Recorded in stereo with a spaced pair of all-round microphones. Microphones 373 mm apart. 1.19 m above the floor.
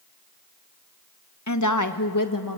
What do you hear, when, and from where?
1.5 s a woman speaking: 45° left (ahead or behind), 1.2 m; by 2.6 s 55° left (ahead or behind), 1.9 m